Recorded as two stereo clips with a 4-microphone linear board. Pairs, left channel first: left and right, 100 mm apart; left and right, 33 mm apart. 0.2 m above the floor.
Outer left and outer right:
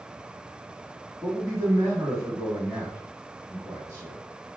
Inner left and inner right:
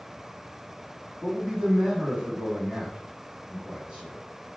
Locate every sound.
1.2 s a man speaking: 30° right (ahead or behind), 1.3 m